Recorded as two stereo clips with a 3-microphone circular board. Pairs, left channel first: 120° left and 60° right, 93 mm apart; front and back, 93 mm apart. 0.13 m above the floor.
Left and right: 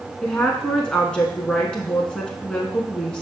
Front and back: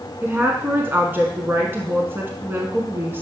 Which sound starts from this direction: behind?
A woman speaking, at 0.2 s.